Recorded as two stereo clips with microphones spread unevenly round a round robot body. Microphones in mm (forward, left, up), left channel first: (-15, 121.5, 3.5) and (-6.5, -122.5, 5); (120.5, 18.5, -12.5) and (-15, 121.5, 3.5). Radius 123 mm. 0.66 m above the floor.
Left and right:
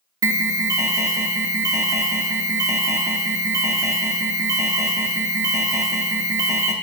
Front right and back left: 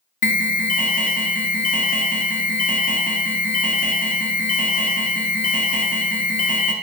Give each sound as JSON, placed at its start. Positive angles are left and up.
{"t": 0.2, "sound": "an alarm", "azimuth_deg": -10, "distance_m": 0.7}